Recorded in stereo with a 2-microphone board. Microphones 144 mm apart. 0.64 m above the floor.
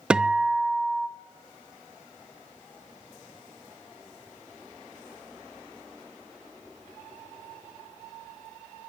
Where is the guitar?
5° right (ahead or behind), 0.8 m.